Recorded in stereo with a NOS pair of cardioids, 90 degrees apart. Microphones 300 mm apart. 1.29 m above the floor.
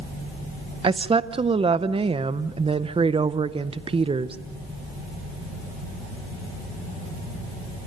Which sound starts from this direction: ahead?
A woman speaking, at 0.8 s.